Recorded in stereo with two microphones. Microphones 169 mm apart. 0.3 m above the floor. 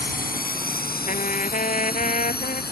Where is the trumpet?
50° left (ahead or behind).